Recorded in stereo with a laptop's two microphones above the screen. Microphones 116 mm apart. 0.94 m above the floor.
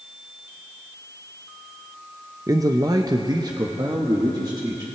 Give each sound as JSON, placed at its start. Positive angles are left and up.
{"t": 2.5, "sound": "a man speaking", "side_deg": -30, "distance_m": 0.6}